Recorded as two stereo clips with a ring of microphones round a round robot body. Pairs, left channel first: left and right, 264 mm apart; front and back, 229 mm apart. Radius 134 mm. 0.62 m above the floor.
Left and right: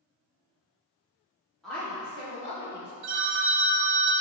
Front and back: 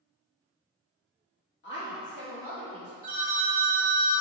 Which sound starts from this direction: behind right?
A phone ringing, at 3.0 s.